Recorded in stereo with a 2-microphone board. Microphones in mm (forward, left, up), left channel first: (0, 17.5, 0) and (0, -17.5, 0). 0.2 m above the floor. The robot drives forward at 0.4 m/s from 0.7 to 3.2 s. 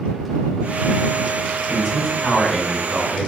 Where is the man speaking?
Centre (ahead or behind), 1.5 m.